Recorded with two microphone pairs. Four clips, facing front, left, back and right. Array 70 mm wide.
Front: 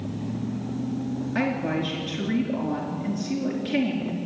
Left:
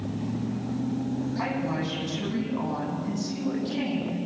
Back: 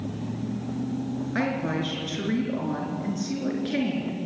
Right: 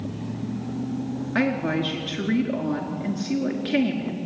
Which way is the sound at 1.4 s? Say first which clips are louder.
Right 5 dB, front 1 dB; 100° right.